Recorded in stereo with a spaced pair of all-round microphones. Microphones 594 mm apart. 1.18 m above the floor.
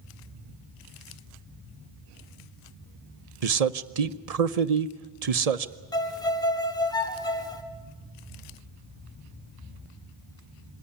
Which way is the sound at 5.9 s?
5° left (ahead or behind).